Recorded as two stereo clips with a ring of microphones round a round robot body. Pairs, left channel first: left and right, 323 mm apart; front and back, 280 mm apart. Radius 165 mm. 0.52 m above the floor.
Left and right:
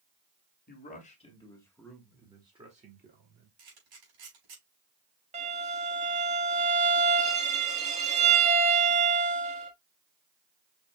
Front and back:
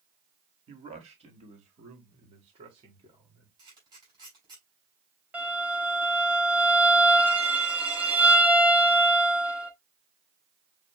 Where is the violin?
105° right, 1.1 m.